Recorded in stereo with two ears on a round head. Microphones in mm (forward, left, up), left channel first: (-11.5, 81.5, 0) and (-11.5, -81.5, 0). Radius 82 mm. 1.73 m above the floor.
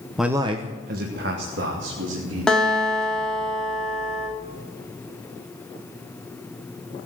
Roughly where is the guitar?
Centre.